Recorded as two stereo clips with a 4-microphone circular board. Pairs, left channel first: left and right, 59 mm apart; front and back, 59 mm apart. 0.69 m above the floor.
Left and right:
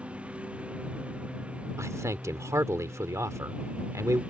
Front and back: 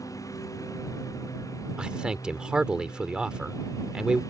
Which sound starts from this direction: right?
A man speaking, at 1.8 s.